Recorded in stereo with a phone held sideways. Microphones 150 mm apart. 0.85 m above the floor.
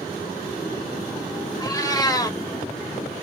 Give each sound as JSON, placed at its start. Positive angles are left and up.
{"t": 1.6, "sound": "a cat meowing", "side_deg": 25, "distance_m": 0.6}